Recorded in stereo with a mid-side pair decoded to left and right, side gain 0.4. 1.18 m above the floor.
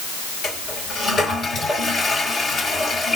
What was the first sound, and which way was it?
A toilet flushing, 55° left.